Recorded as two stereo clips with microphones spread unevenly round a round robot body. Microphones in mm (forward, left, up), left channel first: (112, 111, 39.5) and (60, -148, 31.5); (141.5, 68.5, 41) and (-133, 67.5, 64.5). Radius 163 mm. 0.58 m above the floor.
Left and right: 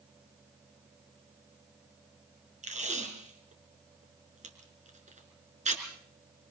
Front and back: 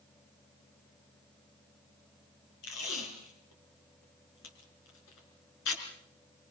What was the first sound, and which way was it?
Tape being pulled, 35° right.